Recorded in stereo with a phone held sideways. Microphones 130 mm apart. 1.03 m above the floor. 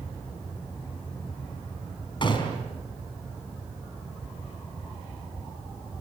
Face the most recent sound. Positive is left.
turn(degrees=40)  # may be behind; listen again after turning